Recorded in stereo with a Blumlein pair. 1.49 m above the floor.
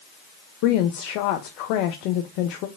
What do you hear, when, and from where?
0.6 s a woman speaking: 40° left, 0.5 m